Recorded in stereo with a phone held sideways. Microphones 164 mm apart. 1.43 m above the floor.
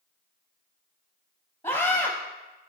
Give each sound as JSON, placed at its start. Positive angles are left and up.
{"t": 1.6, "sound": "a scream", "side_deg": 30, "distance_m": 0.7}